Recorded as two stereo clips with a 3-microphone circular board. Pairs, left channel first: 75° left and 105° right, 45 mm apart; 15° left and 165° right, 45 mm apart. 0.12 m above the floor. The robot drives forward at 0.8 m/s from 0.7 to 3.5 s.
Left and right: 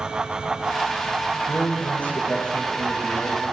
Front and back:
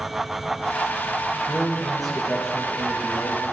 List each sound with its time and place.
1.5 s a man speaking: 85° left, 1.9 m; by 3.5 s 140° left, 2.5 m